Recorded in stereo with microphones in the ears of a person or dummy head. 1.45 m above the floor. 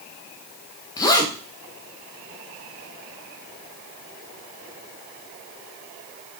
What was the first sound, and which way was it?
A zipper, 25° left (ahead or behind).